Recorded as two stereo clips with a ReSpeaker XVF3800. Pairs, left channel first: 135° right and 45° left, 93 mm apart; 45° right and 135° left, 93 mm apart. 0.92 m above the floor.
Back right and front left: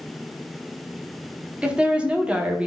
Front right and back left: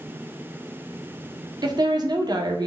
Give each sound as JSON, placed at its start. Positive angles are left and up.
{"t": 1.6, "sound": "a woman speaking", "azimuth_deg": 120, "distance_m": 0.6}